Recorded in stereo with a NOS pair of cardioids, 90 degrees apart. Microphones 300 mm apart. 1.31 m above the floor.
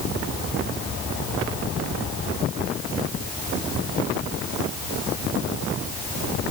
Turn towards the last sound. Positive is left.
No sound to turn to.